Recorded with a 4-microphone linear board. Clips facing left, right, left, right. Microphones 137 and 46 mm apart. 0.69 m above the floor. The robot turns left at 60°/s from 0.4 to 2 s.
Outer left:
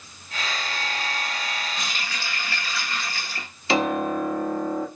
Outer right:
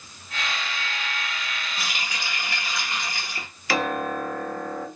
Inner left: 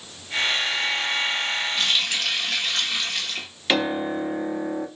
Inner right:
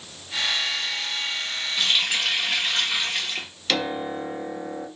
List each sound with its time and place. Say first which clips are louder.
1.8 s a running tap: even, inner right 5 dB; 5° right (ahead or behind), 1.1 m; by 3.5 s 15° right (ahead or behind), 1.1 m
3.7 s a piano: outer left 3 dB, inner left 3 dB; 20° left (ahead or behind), 0.7 m